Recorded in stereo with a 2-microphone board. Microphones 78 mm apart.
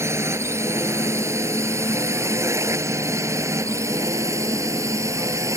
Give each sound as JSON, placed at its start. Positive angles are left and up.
{"t": 0.0, "sound": "a drone", "side_deg": -35}